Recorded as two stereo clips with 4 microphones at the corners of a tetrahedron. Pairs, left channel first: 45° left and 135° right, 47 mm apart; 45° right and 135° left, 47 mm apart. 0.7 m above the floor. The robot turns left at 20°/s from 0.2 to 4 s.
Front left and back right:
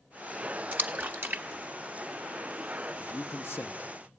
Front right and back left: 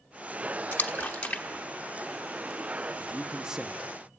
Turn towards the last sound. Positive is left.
turn(degrees=50)